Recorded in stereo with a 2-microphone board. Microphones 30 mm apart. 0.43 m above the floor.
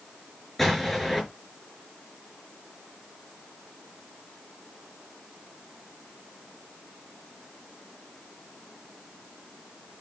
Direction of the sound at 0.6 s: 5° left (ahead or behind).